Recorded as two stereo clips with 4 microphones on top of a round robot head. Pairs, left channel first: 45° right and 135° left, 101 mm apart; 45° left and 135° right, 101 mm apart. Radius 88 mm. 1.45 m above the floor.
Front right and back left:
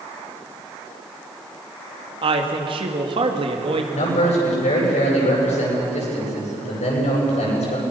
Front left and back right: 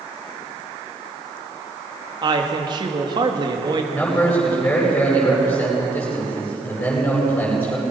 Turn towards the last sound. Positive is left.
turn(degrees=-35)